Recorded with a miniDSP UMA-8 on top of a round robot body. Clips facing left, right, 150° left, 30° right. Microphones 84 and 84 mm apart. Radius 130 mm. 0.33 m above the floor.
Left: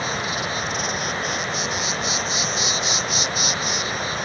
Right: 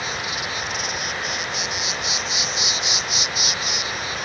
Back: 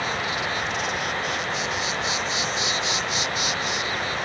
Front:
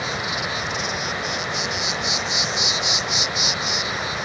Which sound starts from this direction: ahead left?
An insect, at 0.0 s.